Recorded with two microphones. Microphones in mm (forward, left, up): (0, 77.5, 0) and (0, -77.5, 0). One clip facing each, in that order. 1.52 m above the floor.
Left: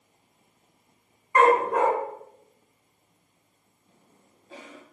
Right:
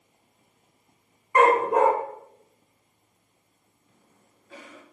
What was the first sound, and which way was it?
A dog barking, 20° right (ahead or behind).